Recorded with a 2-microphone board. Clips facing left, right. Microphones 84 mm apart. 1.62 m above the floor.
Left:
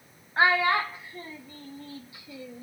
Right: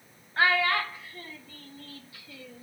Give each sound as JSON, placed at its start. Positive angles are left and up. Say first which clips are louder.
{"t": 0.4, "sound": "a child speaking", "louder": "left 2 dB", "side_deg": 20, "distance_m": 0.7}